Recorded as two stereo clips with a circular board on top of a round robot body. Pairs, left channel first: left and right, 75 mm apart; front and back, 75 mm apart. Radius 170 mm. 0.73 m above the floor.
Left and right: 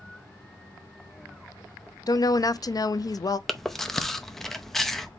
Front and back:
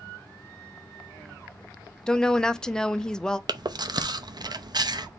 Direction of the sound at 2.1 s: 80° left.